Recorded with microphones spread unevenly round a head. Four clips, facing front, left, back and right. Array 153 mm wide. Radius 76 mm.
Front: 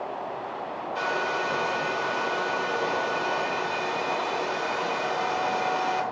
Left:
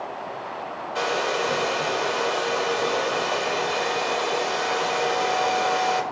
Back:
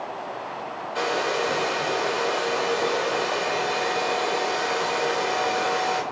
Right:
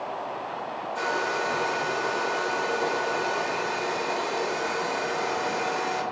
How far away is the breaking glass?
No breaking glass in this recording.